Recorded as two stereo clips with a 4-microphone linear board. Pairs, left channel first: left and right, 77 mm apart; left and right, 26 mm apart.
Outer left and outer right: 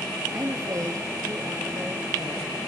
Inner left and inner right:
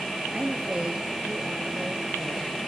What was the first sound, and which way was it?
A woman speaking, 50° right (ahead or behind).